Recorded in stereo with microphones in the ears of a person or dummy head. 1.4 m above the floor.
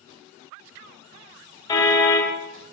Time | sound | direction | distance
1.7 | a car horn | 20° left (ahead or behind) | 4 m